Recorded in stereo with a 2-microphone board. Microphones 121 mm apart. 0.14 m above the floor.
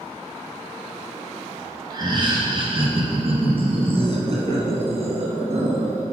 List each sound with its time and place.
1.9 s laughter: 30° right (ahead or behind), 2 m; by 6.0 s 60° right (ahead or behind), 3 m